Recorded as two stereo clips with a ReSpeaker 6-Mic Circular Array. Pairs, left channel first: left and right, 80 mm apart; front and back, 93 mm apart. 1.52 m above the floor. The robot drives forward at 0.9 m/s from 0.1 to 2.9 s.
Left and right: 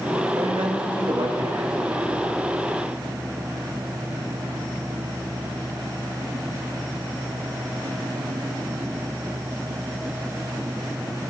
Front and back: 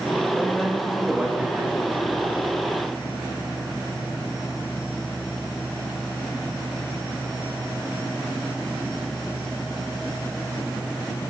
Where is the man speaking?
75° right, 2.0 m; by 2.5 s 125° right, 2.5 m.